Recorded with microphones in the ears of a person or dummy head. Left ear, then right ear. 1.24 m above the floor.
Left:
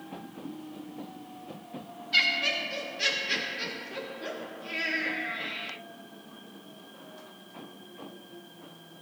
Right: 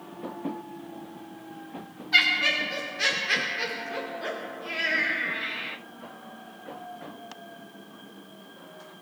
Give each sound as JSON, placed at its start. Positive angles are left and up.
{"t": 2.1, "sound": "laughter", "side_deg": -55, "distance_m": 3.0}